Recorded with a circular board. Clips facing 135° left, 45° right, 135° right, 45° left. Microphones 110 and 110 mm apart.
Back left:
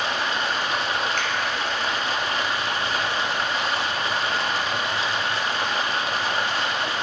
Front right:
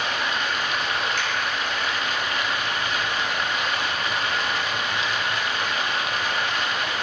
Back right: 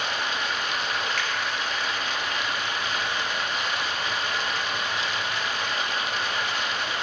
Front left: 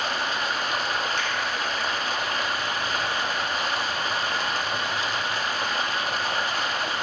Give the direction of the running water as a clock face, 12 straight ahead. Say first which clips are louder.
Back left 1 dB, front left 2 dB; 9 o'clock.